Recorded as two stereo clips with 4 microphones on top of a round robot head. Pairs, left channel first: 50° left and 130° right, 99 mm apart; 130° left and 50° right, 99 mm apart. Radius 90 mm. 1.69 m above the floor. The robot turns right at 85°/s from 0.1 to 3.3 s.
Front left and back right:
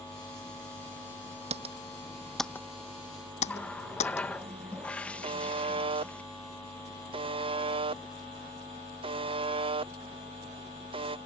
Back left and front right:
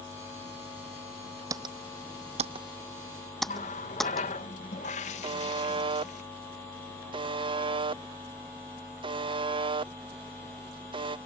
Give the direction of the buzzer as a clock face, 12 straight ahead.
3 o'clock.